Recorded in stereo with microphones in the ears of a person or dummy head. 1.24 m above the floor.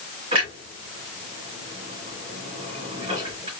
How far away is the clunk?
About 2 m.